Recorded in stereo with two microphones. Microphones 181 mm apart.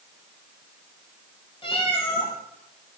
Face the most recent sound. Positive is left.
turn(degrees=30)  # may be behind; listen again after turning